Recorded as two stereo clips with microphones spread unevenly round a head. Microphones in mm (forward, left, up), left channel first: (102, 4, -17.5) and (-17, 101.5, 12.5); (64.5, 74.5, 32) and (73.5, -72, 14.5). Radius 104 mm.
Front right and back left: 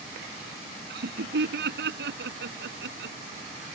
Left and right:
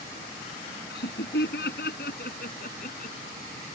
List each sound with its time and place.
0.9 s laughter: 135° left; by 3.2 s 150° left